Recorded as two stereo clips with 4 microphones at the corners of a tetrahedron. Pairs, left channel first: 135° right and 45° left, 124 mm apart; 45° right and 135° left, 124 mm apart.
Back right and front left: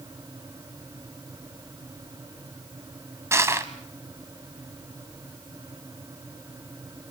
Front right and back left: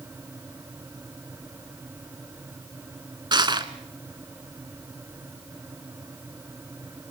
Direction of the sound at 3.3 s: 105° left.